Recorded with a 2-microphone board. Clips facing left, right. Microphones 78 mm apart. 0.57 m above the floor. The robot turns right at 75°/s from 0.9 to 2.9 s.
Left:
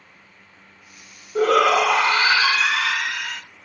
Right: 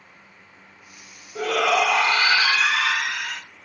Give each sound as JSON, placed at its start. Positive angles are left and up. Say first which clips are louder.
{"t": 1.4, "sound": "a shout", "louder": "left 5 dB", "azimuth_deg": 70, "distance_m": 1.7}